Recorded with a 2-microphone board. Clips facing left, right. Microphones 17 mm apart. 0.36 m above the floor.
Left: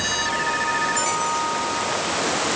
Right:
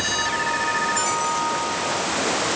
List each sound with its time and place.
Only background noise.